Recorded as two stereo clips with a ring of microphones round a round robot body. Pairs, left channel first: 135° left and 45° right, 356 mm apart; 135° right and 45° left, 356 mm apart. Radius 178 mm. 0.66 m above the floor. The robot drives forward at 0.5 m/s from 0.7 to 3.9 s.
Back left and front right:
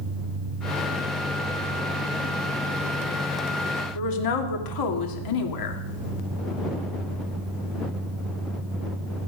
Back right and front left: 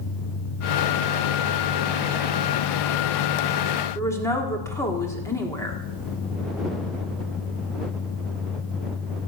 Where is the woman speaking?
145° left, 1.8 m.